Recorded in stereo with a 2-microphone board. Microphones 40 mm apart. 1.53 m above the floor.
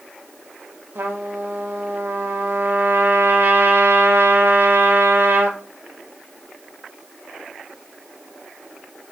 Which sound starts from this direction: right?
A trumpet, at 0.9 s.